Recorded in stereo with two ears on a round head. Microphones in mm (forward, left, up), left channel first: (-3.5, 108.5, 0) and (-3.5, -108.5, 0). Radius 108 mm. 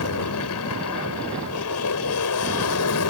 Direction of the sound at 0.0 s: 70° left (ahead or behind).